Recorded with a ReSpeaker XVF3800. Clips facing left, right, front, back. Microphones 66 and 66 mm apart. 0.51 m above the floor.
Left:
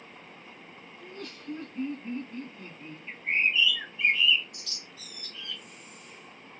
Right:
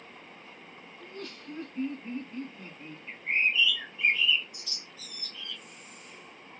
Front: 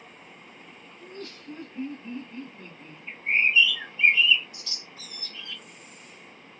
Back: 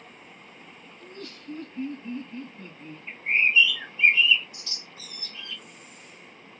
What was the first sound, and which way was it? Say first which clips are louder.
Laughter: even, front 1 dB; 15° left.